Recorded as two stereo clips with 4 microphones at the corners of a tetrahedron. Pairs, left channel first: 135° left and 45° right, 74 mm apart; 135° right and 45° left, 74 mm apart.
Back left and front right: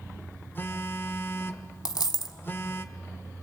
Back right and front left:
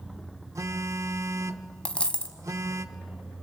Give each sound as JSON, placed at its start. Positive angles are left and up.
{"t": 0.6, "sound": "a phone buzzing", "azimuth_deg": 80, "distance_m": 0.8}
{"t": 1.9, "sound": "a dropped coin", "azimuth_deg": 150, "distance_m": 1.0}